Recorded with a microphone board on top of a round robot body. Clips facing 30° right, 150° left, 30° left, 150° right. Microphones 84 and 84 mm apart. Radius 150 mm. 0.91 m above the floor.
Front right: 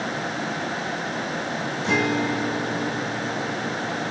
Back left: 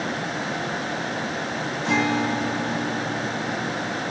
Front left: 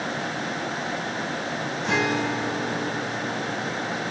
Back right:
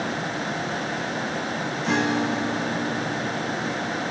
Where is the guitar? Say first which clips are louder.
Back left 1 dB, back right 1 dB; 60° right, 1.5 m.